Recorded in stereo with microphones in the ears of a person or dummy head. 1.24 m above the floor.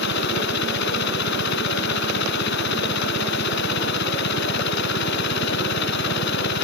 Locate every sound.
0.0 s a machine running: 70° left (ahead or behind)